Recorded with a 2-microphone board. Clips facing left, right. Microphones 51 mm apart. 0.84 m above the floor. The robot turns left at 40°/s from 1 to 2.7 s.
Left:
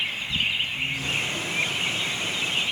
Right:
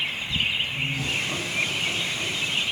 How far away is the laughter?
About 8 m.